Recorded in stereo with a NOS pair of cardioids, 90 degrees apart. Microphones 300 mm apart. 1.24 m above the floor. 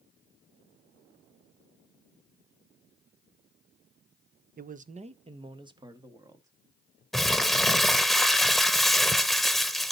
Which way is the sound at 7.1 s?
Straight ahead.